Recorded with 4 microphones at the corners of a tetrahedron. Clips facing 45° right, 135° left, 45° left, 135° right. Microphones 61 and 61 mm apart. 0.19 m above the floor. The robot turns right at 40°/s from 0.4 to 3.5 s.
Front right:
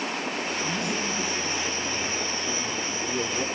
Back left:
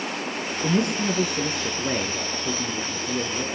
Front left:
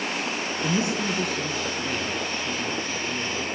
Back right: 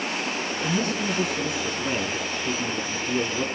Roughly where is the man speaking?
Left.